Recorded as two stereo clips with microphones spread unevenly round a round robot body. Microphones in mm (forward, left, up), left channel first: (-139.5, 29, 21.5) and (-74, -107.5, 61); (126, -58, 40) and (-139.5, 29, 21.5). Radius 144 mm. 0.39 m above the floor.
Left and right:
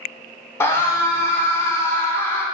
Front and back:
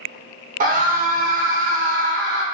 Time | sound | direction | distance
0.6 | a scream | 145° left | 0.9 m